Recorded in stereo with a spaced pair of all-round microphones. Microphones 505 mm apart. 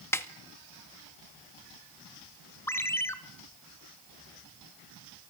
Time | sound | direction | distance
0.1 | a snare drum | 5° left (ahead or behind) | 2.0 m
2.7 | a ringtone | 5° left (ahead or behind) | 2 m